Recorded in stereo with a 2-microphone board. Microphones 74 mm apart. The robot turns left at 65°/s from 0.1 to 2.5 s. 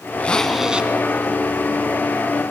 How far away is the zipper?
About 0.5 m.